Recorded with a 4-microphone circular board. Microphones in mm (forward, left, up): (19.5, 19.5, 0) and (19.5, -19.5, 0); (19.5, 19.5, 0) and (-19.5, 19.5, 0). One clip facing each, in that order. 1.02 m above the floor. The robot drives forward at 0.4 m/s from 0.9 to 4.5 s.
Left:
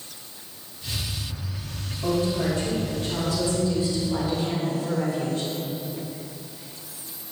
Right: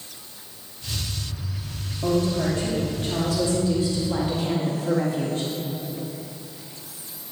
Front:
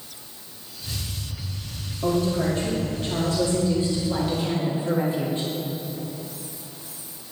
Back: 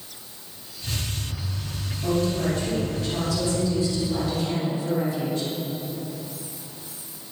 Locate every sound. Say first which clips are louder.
2.0 s a woman speaking: right 1 dB, front 1 dB; 35° right, 2.5 m; by 5.5 s 60° right, 1.7 m